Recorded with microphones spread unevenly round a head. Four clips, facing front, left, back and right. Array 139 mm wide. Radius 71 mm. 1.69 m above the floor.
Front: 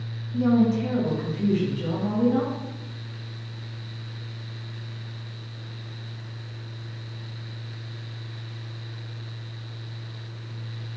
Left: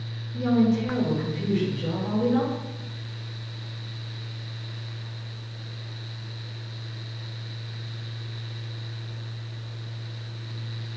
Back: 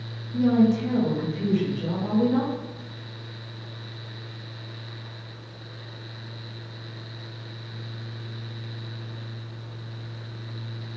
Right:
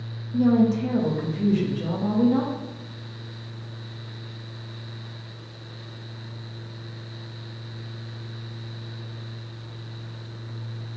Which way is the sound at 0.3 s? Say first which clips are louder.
Right 2 dB, back 1 dB; 90° right.